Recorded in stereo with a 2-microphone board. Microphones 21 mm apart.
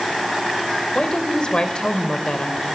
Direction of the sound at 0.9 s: 50° left (ahead or behind).